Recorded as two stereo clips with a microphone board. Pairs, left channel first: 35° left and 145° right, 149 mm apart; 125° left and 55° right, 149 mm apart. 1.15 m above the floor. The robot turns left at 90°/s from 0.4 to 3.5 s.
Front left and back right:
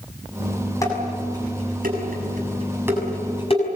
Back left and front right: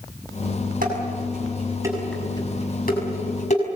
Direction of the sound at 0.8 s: 35° right.